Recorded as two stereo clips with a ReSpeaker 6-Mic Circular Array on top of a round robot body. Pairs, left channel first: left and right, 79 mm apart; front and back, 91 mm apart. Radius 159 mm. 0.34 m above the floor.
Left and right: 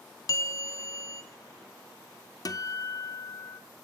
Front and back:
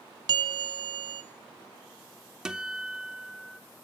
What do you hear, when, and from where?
0.3 s a bell: 140° left, 0.6 m
2.5 s a guitar: 100° left, 1.1 m